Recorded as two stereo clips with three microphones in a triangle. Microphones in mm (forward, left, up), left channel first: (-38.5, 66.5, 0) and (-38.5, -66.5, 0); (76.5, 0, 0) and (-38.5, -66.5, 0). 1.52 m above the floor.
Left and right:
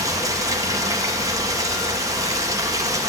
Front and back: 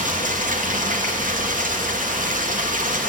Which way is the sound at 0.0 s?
155° right.